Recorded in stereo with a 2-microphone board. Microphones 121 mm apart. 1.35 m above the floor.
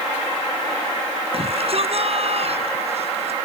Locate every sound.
1.3 s a shout: 50° right (ahead or behind); by 3.3 s 55° right (ahead or behind)